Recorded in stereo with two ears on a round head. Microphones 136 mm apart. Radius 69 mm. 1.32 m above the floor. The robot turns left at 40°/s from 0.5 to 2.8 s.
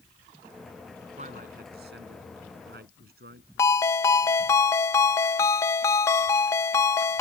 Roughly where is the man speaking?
Right.